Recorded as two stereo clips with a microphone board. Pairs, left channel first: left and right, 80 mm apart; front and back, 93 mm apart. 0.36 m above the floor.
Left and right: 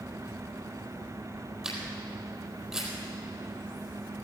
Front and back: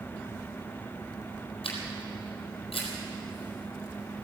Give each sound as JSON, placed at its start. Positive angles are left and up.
{"t": 1.6, "sound": "a camera shutter", "azimuth_deg": -5, "distance_m": 4.0}